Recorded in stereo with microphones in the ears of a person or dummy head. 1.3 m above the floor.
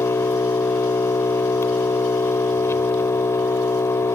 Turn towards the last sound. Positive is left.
turn(degrees=15)  # may be behind; listen again after turning